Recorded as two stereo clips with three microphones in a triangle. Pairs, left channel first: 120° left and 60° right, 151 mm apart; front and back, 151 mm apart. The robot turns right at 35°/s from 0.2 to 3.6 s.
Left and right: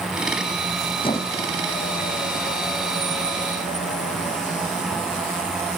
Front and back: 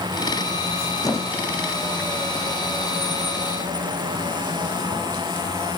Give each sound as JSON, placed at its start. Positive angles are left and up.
{"t": 1.0, "sound": "a squeak", "azimuth_deg": 65, "distance_m": 1.4}